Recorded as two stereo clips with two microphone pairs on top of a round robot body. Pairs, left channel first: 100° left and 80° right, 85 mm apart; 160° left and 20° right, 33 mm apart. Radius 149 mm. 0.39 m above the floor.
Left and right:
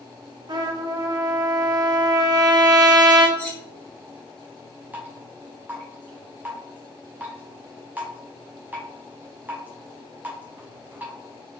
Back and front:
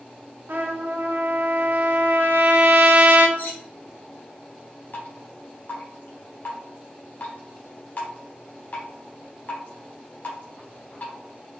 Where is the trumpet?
50° right, 0.7 m.